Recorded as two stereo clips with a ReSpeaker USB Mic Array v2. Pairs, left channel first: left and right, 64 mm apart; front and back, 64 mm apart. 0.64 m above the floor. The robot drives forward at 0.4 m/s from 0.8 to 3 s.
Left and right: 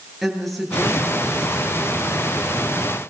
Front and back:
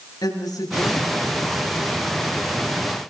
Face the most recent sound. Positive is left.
turn(degrees=0)